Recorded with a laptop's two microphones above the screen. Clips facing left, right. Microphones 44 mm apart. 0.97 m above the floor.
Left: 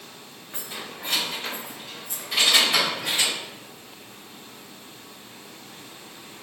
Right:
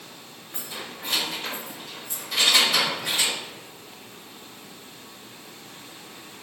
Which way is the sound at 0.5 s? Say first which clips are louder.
Even; 35° left (ahead or behind).